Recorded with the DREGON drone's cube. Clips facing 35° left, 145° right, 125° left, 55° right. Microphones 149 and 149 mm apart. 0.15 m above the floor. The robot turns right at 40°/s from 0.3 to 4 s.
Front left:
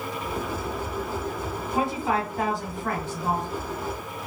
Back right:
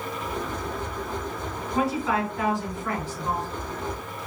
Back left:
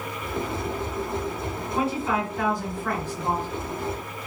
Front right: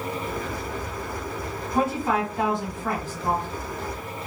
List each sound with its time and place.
1.7 s a woman speaking: 35° right, 2 m; by 3.5 s 35° left, 2 m